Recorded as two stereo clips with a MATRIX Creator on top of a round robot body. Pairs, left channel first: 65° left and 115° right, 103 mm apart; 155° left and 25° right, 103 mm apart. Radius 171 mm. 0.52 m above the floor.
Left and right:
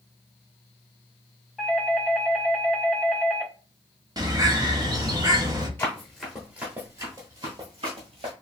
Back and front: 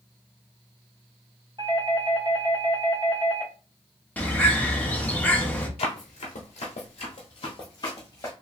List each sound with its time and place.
1.6 s a doorbell: 20° right, 1.7 m
4.2 s a bird: 135° right, 1.2 m
5.8 s running footsteps: 140° left, 0.9 m; by 8.3 s 140° right, 1.3 m